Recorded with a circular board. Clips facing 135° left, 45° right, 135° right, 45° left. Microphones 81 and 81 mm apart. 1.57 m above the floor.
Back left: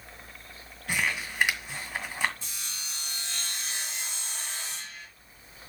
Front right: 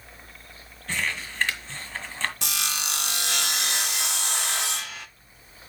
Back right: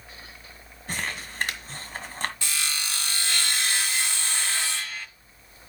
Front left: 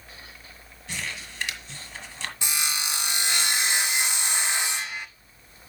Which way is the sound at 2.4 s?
30° right.